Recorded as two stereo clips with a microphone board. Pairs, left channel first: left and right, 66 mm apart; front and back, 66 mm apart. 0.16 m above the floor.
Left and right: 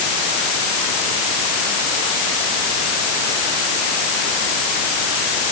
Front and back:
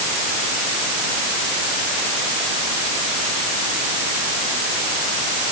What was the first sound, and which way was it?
Only background noise.